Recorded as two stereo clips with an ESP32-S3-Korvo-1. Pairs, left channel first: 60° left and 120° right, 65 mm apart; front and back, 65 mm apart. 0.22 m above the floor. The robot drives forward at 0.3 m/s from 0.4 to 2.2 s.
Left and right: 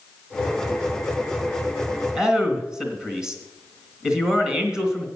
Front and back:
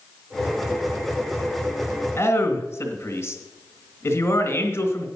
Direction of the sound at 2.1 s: 40° right.